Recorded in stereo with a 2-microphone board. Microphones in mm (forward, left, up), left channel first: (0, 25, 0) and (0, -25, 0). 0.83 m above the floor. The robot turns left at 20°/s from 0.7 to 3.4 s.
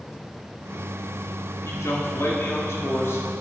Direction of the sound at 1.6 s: 90° left.